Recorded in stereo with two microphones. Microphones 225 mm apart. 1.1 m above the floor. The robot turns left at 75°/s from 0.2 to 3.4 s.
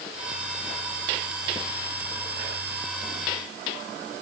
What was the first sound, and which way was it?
Only background noise.